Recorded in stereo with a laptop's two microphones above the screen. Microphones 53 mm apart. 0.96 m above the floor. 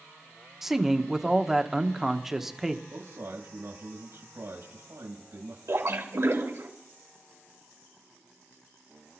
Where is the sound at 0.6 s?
5° right (ahead or behind), 1.0 m.